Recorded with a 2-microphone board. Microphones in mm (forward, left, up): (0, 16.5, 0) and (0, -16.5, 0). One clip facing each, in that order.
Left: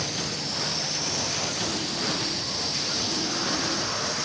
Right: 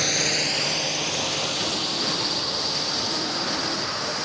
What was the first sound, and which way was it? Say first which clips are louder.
A drone: right 7 dB; 75° right (ahead or behind).